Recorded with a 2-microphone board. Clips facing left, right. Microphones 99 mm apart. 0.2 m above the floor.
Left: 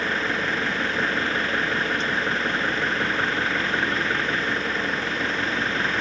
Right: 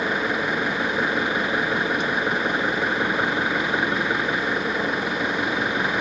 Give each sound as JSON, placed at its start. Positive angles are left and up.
{"t": 0.0, "sound": "an engine running", "side_deg": -15}